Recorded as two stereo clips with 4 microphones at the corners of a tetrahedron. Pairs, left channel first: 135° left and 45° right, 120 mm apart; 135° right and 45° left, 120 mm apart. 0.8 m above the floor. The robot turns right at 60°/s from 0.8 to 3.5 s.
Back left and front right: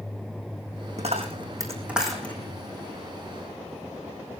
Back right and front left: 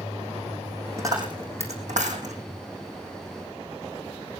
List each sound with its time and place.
1.0 s a dropped coin: 20° right, 4.5 m; by 2.4 s 60° left, 4.5 m